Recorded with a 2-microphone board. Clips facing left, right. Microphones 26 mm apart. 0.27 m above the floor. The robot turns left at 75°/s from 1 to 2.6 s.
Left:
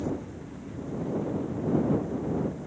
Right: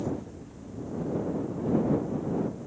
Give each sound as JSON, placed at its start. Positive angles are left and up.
{"t": 0.0, "sound": "a helicopter", "side_deg": 35}